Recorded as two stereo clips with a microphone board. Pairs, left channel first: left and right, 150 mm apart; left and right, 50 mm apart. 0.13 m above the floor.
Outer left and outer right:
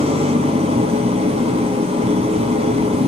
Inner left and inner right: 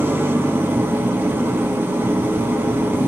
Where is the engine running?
40° right (ahead or behind), 2 m.